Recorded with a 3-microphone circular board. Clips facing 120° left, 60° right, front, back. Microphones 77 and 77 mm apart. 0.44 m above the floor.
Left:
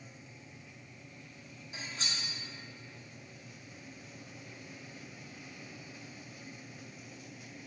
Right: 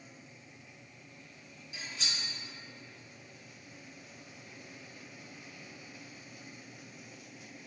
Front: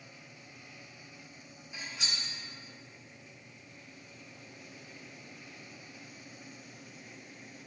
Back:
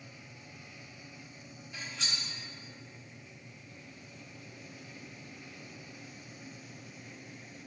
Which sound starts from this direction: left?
Cutlery clinking, at 1.7 s.